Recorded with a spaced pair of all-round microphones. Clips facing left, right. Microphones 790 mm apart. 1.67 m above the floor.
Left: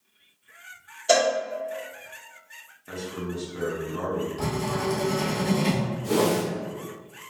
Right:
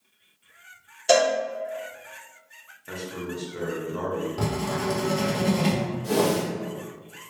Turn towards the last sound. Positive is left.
turn(degrees=-35)  # may be behind; listen again after turning